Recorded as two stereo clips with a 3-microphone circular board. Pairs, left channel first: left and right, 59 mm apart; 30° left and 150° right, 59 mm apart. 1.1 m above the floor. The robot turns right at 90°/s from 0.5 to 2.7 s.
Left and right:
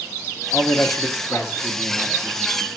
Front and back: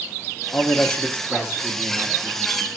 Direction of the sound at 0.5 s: 45° left.